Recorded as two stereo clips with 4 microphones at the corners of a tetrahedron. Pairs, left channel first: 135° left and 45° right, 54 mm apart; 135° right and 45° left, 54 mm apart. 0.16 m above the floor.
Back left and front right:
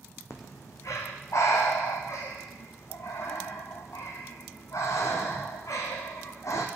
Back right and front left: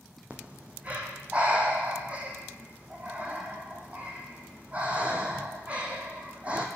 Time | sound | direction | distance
0.3 | breathing | 110° left | 1.4 m